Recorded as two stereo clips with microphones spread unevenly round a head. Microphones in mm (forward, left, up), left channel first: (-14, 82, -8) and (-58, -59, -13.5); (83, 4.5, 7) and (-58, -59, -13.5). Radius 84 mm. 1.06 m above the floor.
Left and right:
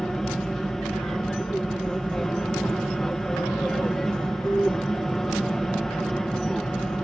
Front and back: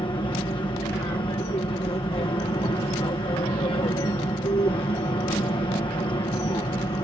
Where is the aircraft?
10° right.